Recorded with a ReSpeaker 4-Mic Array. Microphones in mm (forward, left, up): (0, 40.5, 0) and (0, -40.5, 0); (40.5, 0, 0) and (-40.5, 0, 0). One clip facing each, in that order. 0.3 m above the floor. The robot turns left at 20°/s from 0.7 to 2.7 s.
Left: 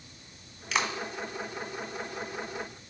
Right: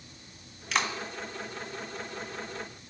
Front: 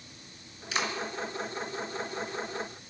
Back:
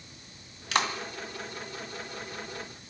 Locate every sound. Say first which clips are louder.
0.7 s a clap: even, back 4 dB; straight behind, 1.7 m; by 0.9 s 175° left, 1.7 m